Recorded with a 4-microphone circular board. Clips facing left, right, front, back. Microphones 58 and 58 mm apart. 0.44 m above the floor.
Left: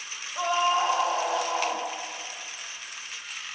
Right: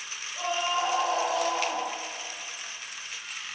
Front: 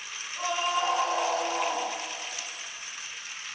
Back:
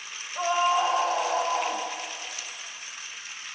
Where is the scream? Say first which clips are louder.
Left 5 dB, back 5 dB; 155° left, 3 m; by 1.9 s 165° left, 4 m.